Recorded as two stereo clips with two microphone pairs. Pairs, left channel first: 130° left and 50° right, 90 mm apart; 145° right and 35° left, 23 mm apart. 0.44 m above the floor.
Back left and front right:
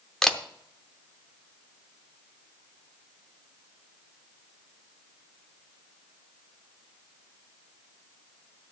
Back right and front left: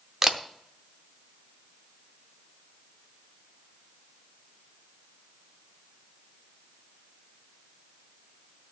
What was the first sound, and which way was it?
A camera shutter, 45° left.